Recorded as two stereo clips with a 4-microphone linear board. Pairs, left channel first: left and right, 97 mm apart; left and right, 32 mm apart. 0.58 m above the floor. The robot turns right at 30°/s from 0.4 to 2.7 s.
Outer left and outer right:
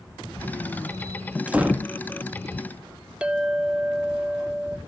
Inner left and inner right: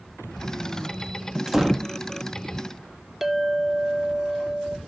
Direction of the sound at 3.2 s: 10° right (ahead or behind).